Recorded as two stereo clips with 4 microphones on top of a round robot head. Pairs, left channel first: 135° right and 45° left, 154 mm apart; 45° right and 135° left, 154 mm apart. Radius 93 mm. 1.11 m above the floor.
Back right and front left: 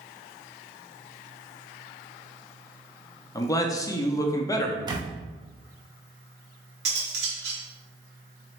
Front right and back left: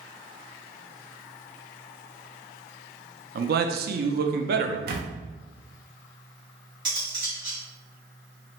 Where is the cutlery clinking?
70° left, 1.2 m.